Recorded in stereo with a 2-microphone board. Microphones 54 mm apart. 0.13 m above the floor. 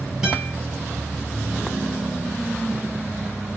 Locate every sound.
0.2 s a guitar: 15° right (ahead or behind), 2.5 m